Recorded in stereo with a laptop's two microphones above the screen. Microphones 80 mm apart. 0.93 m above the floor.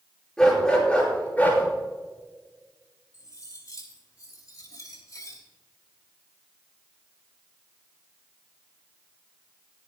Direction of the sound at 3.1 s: 45° left (ahead or behind).